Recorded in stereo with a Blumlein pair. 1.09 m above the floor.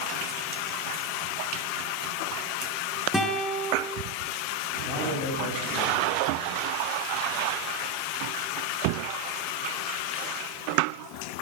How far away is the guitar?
About 8 m.